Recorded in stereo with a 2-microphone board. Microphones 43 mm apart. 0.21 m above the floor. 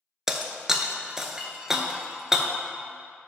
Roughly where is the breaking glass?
Centre.